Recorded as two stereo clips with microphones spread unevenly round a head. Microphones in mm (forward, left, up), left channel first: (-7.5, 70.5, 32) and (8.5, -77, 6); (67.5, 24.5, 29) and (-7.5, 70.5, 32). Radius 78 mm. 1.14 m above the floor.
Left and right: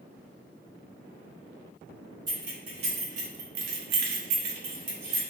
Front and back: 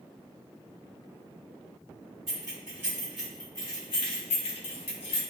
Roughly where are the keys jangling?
Behind right.